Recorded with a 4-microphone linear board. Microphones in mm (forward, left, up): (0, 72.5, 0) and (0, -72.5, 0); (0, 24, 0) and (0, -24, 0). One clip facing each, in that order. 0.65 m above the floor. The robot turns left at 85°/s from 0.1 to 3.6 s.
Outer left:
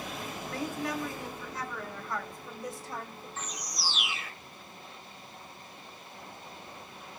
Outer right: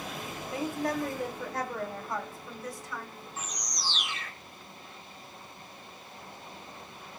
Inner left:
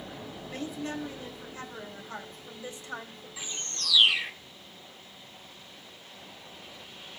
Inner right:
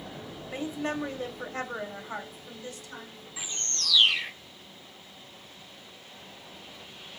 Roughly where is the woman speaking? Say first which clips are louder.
Outer right 3 dB, inner right 4 dB; ahead.